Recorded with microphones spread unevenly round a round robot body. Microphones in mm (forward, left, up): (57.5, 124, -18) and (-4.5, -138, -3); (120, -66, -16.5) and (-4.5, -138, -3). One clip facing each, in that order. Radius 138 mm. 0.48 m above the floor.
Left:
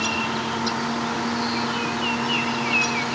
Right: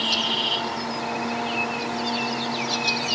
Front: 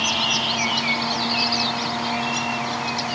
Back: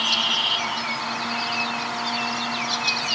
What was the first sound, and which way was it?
Only background noise.